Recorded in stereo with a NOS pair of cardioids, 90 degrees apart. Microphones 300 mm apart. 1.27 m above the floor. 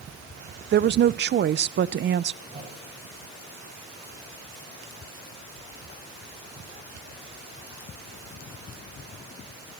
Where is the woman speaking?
35° right, 0.5 m.